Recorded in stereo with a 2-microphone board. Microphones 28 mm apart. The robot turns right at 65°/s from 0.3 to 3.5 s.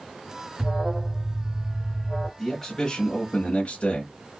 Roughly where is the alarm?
Centre.